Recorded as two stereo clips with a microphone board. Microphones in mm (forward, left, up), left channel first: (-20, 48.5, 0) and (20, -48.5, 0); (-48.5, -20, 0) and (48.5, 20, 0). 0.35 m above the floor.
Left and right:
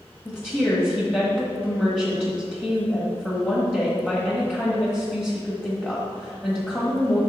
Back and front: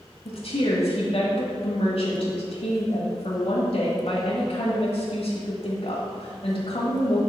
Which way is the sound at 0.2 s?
170° right.